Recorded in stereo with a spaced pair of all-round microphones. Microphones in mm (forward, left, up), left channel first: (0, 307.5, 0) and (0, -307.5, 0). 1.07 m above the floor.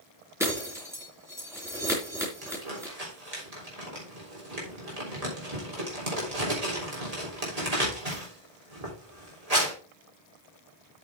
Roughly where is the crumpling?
Right.